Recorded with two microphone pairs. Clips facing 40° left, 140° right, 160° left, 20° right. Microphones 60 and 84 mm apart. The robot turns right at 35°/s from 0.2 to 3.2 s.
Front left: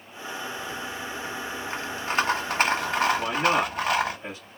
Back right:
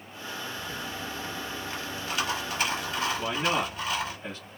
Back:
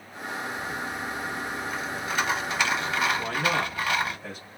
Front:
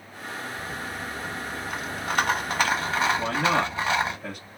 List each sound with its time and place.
0.6 s a rattle: 55° right, 0.9 m; by 4.2 s 40° left, 0.9 m
3.2 s a man speaking: 30° right, 2 m; by 4.5 s 25° right, 2 m